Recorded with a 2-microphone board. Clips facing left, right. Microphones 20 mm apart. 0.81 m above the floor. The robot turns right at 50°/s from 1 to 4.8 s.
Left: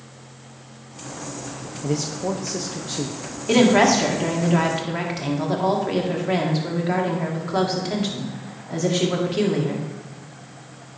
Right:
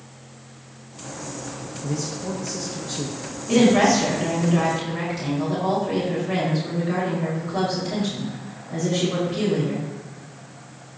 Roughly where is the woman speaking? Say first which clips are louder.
Left 1 dB; left.